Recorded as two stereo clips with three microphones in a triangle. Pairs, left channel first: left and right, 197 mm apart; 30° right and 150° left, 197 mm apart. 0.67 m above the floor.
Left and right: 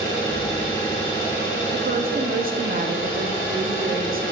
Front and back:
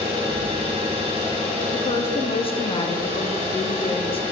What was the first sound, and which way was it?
An engine running, 90° left.